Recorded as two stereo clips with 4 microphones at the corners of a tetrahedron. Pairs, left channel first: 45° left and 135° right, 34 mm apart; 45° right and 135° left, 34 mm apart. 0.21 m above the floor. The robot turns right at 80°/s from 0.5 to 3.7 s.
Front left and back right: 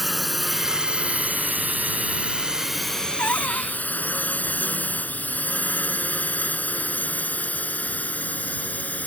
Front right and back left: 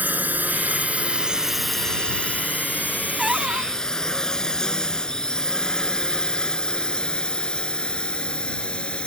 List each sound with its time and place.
0.0 s a drone: 135° left; by 9.1 s 10° left
3.2 s a cupboard door: 55° left; by 3.7 s 95° left